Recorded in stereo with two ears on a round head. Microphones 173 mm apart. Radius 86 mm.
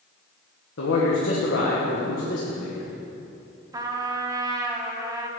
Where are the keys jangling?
No keys jangling in this recording.